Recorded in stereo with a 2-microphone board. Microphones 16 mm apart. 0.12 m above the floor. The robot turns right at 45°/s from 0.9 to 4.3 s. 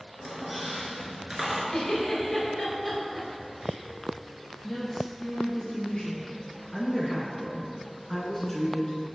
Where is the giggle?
45° left (ahead or behind), 1.6 m; by 3.8 s 20° right (ahead or behind), 1.6 m.